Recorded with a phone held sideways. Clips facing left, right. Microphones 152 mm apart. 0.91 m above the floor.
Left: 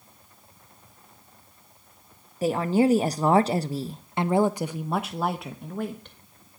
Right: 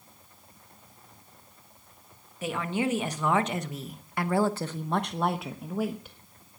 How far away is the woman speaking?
About 1.3 m.